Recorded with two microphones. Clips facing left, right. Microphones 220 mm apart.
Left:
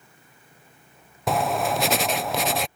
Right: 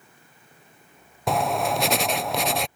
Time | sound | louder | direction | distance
1.3 | writing | even | centre (ahead or behind) | ?